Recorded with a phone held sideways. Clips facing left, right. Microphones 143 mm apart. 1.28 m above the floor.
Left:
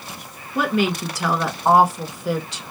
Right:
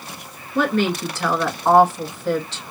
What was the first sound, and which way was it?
A woman speaking, 10° left (ahead or behind).